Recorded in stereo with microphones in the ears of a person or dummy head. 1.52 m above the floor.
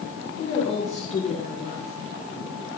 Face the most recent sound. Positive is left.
turn(degrees=40)  # may be behind; listen again after turning